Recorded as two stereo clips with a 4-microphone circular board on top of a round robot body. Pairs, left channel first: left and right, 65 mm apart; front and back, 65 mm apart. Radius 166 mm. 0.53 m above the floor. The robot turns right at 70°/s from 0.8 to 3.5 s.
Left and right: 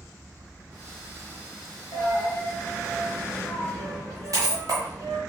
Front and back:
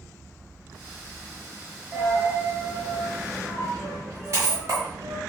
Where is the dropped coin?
120° left, 0.9 m; by 5.2 s 125° right, 0.9 m.